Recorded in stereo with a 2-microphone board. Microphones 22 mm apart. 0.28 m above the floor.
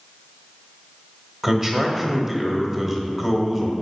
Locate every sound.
1.4 s a man speaking: 20° right (ahead or behind), 1.0 m